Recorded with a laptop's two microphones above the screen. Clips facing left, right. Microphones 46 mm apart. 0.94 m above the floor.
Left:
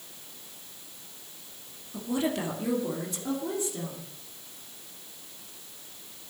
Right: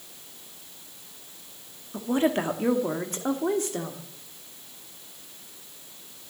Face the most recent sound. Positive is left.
turn(degrees=-70)  # may be behind; listen again after turning